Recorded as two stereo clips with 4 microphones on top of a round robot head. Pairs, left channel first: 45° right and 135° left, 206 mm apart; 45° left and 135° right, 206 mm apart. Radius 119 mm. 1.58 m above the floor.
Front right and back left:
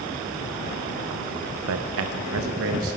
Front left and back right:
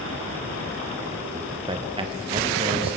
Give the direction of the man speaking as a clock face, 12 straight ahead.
7 o'clock.